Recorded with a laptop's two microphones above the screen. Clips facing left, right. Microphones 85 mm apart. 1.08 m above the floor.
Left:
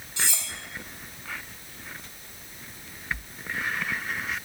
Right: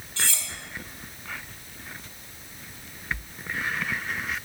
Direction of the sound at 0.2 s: 20° left (ahead or behind).